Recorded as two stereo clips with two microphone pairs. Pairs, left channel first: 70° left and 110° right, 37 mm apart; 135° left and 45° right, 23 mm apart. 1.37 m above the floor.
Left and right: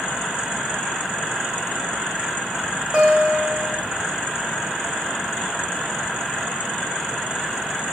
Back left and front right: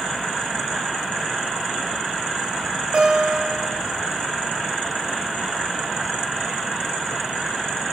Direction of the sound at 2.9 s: 40° right.